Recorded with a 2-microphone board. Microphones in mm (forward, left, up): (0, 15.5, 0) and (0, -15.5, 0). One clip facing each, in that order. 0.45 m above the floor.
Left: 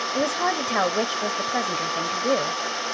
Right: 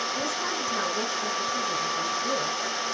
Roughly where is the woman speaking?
Left.